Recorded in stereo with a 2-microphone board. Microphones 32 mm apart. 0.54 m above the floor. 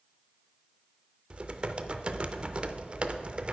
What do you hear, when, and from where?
1.3 s typing on a keyboard: 35° right (ahead or behind), 0.6 m